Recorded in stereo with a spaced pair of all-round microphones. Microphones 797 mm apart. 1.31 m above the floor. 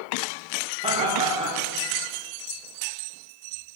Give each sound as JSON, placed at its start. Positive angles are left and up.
{"t": 0.8, "sound": "laughter", "side_deg": -5, "distance_m": 0.7}